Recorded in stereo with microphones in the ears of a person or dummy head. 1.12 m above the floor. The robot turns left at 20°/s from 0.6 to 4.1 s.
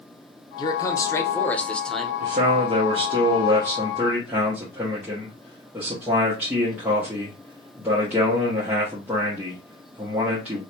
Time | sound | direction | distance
0.6 | a man speaking | 30° left | 0.6 m
2.2 | a man speaking | 135° right | 0.8 m